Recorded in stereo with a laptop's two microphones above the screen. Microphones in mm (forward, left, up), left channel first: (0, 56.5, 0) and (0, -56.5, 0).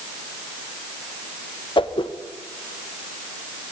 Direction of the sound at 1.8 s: 45° left (ahead or behind).